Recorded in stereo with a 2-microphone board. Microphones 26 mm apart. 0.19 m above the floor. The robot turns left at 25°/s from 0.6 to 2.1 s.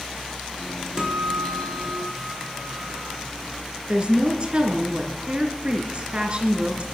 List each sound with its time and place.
1.0 s a guitar: 25° right (ahead or behind), 3.5 m; by 3.2 s centre (ahead or behind), 3.5 m
3.9 s a woman speaking: 40° right (ahead or behind), 3 m